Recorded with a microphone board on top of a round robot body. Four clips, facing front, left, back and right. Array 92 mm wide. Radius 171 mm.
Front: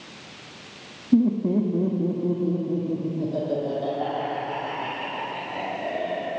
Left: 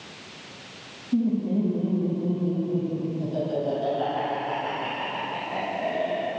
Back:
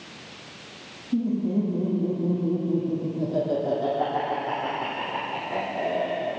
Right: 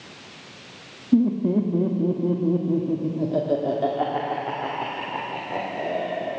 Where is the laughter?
50° right, 1.5 m; by 6.4 s 125° right, 3 m.